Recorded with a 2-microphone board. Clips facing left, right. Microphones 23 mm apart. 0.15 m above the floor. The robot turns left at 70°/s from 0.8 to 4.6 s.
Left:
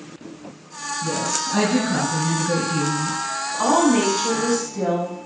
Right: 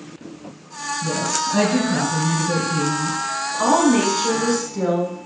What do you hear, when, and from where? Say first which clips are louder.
1.0 s a woman speaking: right 2 dB; 160° right, 1.5 m; by 3.2 s 50° left, 1.5 m
3.6 s a woman speaking: right 1 dB; 5° left (ahead or behind), 1.1 m; by 5.2 s 15° right (ahead or behind), 1.1 m